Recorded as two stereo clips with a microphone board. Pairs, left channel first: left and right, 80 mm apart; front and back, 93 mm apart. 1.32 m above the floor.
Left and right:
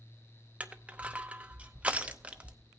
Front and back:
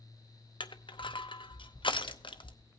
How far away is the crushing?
About 0.8 m.